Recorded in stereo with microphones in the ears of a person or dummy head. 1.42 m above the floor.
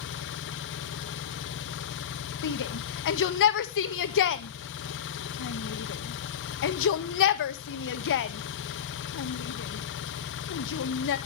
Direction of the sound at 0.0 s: 60° left (ahead or behind).